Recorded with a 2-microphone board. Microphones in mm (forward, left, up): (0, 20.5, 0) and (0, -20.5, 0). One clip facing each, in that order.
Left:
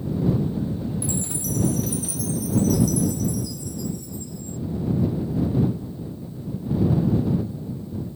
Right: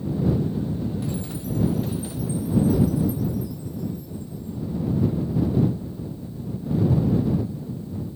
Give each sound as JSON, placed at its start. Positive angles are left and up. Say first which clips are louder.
{"t": 1.0, "sound": "a chime", "louder": "left 1 dB", "side_deg": 75}